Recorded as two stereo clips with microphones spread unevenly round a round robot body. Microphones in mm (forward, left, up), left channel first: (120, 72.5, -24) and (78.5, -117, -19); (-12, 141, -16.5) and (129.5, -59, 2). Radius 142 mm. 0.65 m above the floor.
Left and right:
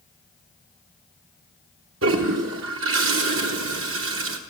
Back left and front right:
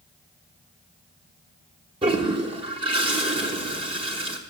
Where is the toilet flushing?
130° right, 0.8 m.